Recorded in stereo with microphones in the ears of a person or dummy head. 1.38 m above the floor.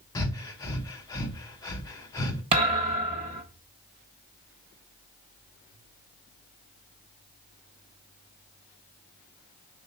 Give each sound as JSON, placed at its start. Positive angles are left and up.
{"t": 0.1, "sound": "breathing", "side_deg": 15, "distance_m": 0.8}
{"t": 2.5, "sound": "a thud", "side_deg": -25, "distance_m": 0.7}